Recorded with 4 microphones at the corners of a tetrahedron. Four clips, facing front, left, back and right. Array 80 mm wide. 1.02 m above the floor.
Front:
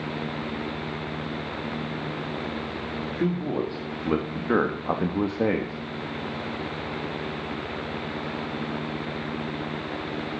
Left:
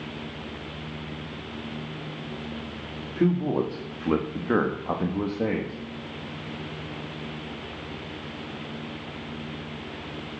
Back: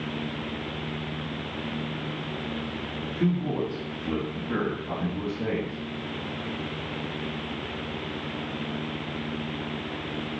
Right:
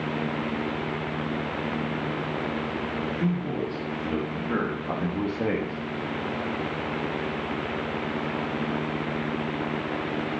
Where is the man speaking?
65° left, 2 m; by 5.8 s 5° right, 1.7 m.